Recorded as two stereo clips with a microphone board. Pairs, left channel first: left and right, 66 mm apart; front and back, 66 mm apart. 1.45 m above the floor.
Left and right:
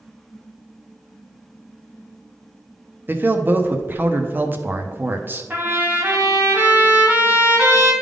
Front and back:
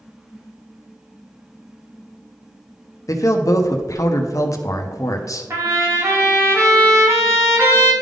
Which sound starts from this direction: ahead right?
A man speaking, at 3.1 s.